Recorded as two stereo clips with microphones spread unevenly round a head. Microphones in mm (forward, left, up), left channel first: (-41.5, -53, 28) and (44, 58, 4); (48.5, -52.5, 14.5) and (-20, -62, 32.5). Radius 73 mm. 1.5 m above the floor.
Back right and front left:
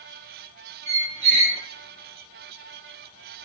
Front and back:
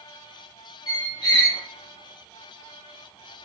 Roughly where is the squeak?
Ahead left.